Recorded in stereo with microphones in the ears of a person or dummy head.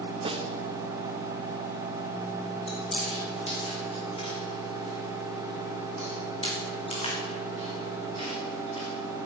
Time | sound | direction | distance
0.2 | a snare drum | 30° right (ahead or behind) | 1.1 m
2.7 | chewing | 30° left (ahead or behind) | 3.5 m